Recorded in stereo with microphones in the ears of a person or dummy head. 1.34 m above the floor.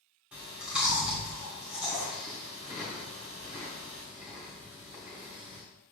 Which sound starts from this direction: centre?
Chewing, at 0.3 s.